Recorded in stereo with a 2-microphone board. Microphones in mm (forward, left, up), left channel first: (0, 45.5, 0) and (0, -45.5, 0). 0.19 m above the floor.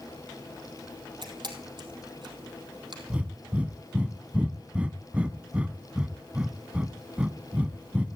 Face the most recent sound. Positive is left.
turn(degrees=-15)  # may be behind; listen again after turning